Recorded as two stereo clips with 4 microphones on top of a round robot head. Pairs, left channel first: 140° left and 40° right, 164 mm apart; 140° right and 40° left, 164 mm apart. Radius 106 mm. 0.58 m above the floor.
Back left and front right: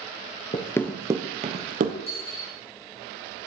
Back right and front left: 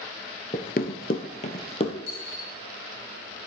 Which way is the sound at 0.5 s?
Straight behind.